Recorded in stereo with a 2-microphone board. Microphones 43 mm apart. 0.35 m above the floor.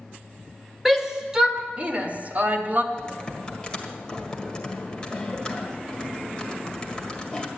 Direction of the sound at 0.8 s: 5° right (ahead or behind).